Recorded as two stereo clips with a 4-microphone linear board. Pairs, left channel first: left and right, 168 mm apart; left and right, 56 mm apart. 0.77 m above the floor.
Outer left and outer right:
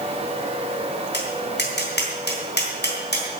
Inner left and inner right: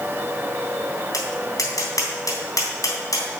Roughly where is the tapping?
Left.